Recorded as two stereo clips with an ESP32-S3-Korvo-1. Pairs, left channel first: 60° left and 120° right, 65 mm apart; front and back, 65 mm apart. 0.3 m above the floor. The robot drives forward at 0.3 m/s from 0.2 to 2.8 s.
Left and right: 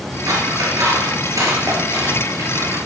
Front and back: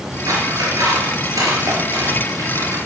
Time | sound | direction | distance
0.3 | scissors | 150° right | 3.5 m